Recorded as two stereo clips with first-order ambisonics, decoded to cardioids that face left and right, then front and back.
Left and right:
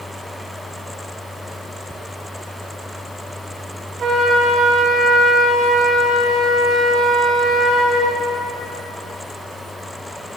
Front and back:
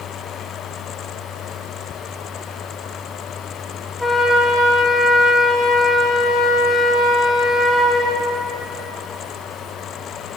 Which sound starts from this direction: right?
A flute, at 4.0 s.